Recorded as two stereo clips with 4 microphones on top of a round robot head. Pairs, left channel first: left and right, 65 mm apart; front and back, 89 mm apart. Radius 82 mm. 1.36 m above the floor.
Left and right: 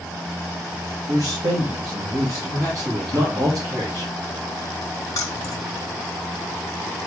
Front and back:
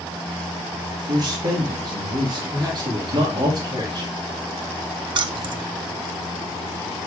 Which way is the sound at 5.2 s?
145° left.